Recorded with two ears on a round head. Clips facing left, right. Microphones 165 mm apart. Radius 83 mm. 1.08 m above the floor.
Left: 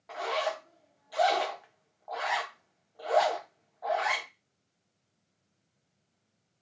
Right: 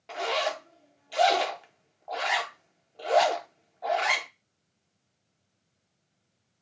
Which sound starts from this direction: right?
A zipper, at 0.1 s.